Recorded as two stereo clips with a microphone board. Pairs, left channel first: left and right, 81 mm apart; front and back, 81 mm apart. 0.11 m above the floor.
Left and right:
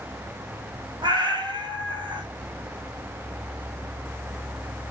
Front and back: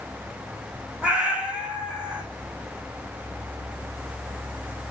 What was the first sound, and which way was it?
A cat meowing, 105° right.